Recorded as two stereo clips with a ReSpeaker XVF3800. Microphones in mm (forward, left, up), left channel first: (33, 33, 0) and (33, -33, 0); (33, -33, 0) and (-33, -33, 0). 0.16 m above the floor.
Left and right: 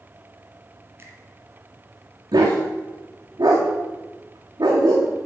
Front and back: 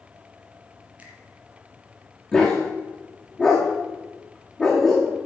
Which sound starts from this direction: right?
A dog barking, at 2.3 s.